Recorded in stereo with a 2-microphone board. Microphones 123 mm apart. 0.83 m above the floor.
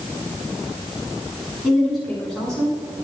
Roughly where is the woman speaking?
Centre.